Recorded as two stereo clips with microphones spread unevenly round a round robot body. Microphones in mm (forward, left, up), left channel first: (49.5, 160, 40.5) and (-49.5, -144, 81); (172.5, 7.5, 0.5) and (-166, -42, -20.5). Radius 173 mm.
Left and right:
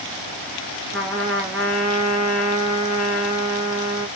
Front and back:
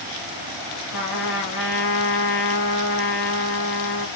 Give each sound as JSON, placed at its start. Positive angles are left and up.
{"t": 0.9, "sound": "a trumpet", "azimuth_deg": -20, "distance_m": 2.5}